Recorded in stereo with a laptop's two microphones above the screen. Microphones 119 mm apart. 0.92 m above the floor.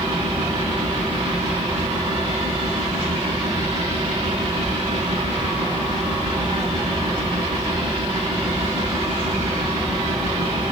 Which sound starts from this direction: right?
A fan, at 0.0 s.